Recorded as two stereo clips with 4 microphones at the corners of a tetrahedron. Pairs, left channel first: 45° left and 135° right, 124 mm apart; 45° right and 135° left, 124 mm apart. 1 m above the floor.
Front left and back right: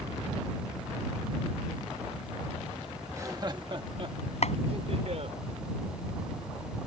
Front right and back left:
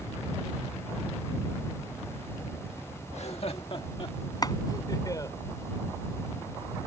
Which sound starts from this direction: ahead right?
Laughter, at 3.1 s.